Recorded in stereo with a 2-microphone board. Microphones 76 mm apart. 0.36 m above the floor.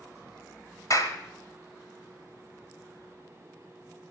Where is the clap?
50° left (ahead or behind), 1.6 m.